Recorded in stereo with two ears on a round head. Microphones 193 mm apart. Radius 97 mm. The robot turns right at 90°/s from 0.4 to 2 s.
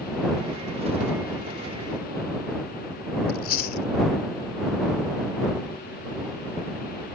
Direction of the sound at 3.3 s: 45° left (ahead or behind).